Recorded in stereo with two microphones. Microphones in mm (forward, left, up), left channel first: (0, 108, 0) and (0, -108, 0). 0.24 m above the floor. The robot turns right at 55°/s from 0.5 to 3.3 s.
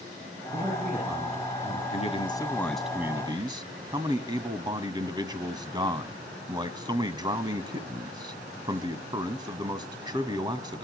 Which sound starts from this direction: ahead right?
A man speaking, at 0.5 s.